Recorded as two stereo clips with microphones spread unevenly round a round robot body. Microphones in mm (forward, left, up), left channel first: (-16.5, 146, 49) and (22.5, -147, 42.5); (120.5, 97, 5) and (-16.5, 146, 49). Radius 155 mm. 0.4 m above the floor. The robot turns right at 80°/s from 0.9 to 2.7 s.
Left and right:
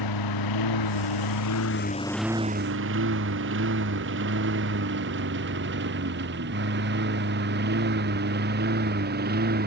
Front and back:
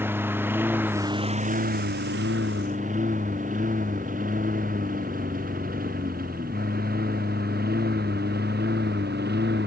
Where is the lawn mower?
85° left; by 9.7 s 140° right.